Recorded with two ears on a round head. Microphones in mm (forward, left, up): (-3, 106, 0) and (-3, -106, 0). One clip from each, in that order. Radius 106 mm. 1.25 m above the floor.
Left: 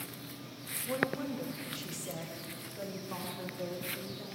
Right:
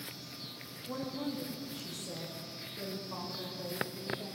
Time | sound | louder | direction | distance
0.9 | a woman speaking | left 5 dB | 55° left (ahead or behind) | 2 m